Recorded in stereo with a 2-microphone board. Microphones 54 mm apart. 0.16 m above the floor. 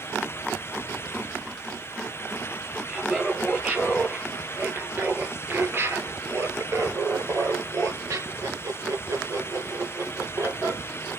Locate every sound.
2.9 s laughter: 20° right (ahead or behind), 3 m; by 10.8 s 65° right (ahead or behind), 3.5 m